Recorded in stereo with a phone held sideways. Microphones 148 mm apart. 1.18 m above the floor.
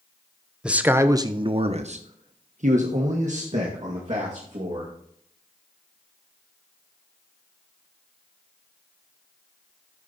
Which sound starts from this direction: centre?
A man speaking, at 0.6 s.